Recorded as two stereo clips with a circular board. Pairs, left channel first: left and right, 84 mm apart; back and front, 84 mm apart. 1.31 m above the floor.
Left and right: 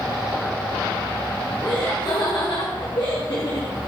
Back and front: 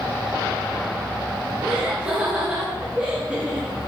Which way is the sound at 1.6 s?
75° left.